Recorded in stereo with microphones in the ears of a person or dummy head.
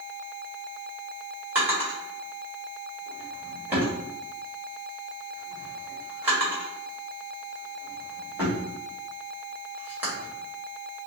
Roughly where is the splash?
I don't hear a splash.